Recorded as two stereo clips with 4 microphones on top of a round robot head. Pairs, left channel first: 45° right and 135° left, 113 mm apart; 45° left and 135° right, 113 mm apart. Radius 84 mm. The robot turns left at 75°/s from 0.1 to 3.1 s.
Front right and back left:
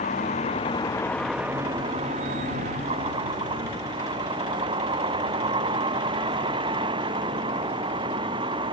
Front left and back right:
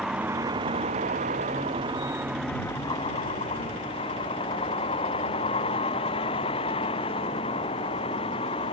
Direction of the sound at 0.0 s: 50° right.